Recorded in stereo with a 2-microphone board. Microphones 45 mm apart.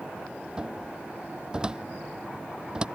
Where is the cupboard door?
20° right (ahead or behind).